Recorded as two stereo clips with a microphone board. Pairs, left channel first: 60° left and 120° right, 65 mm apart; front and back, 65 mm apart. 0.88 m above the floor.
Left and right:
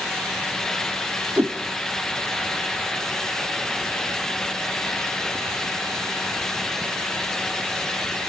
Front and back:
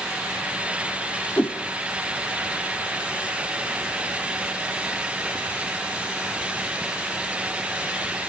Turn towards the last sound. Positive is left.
turn(degrees=-60)